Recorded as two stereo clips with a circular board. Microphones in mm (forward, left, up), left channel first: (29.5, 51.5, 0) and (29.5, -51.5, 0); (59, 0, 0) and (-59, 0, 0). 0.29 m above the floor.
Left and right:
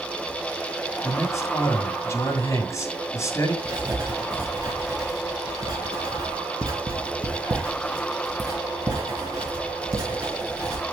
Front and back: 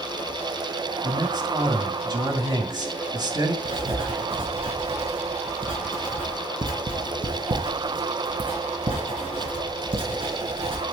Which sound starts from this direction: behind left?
A man speaking, at 1.0 s.